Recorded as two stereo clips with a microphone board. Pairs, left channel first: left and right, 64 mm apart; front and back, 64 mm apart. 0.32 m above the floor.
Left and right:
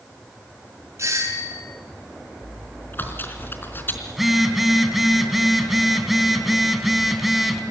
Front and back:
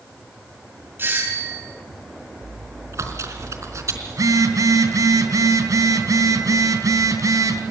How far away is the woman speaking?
I don't hear a woman speaking.